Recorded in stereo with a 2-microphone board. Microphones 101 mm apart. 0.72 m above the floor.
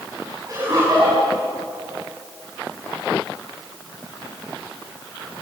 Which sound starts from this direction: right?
Laughter, at 0.5 s.